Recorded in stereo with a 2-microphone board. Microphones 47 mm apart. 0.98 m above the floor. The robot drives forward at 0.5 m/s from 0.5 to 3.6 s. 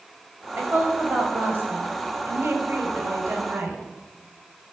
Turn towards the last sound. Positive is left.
turn(degrees=-65)  # may be behind; listen again after turning